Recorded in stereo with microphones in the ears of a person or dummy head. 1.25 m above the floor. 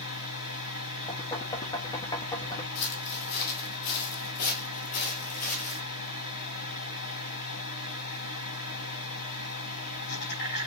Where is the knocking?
20° left (ahead or behind), 1.2 m.